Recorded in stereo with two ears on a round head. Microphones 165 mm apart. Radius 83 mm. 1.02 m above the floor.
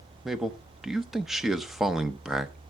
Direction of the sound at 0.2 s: Centre (ahead or behind).